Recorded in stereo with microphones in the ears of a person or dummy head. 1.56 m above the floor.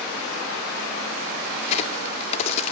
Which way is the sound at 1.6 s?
40° left (ahead or behind).